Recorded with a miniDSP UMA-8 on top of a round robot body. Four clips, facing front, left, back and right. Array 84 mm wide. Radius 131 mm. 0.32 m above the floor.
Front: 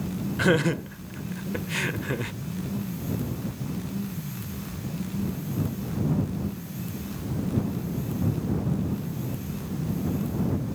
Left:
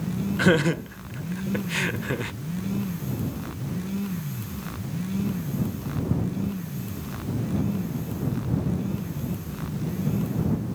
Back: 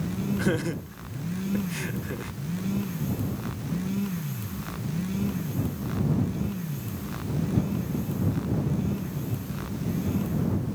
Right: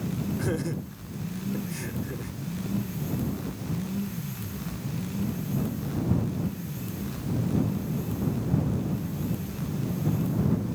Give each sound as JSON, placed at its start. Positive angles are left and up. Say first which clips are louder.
{"t": 0.4, "sound": "laughter", "louder": "left 9 dB, front 8 dB", "azimuth_deg": 60}